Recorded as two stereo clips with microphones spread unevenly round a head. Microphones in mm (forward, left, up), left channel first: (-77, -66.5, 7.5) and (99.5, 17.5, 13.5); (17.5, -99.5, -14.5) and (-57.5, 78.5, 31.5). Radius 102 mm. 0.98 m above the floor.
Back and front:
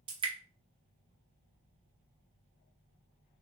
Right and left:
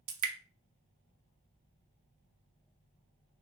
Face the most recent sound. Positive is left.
turn(degrees=95)